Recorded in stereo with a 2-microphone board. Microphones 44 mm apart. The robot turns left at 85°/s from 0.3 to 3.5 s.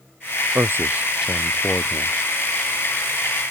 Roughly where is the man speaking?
Right.